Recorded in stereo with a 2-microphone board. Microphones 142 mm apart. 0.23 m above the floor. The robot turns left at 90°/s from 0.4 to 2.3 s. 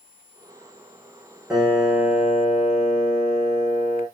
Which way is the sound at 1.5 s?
175° right.